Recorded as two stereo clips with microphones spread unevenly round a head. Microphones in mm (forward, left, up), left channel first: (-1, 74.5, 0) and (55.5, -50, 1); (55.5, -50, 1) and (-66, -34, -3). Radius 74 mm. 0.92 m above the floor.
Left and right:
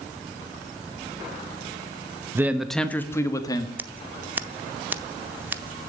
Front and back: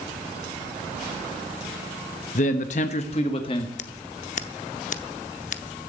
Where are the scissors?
10° left, 0.7 m.